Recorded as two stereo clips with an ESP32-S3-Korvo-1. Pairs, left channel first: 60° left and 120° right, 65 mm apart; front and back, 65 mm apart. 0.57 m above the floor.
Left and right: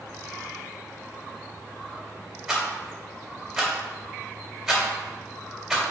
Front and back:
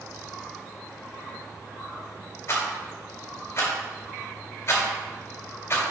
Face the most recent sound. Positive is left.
turn(degrees=-35)